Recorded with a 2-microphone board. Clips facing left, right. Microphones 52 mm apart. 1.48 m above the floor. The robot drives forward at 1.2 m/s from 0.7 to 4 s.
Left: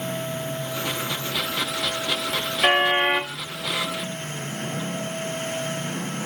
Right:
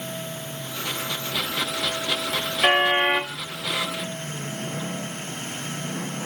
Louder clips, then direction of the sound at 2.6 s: Even; 5° right (ahead or behind).